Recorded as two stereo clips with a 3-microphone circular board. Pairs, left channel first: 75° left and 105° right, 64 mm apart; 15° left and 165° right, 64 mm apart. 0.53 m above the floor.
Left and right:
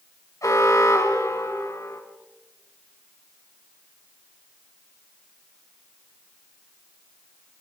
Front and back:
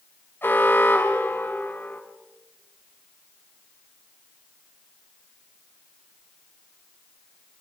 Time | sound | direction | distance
0.4 | an alarm | 65° left | 4 m